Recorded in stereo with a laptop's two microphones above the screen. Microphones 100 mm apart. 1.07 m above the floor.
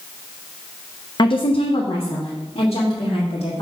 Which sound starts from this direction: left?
A woman speaking, at 1.2 s.